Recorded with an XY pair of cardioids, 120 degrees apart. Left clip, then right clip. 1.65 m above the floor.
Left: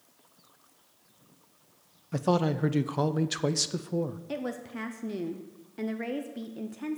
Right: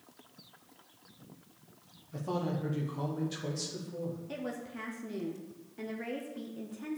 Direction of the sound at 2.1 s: 70° left.